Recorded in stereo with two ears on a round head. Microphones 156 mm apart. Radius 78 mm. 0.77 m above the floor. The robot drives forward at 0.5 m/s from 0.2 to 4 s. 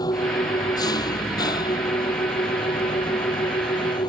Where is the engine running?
25° left (ahead or behind).